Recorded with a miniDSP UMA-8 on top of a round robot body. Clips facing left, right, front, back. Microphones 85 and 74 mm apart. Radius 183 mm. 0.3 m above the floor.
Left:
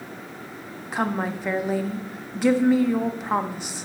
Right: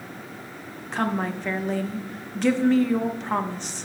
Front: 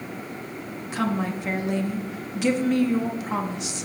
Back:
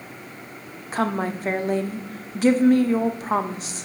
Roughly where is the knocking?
I don't hear knocking.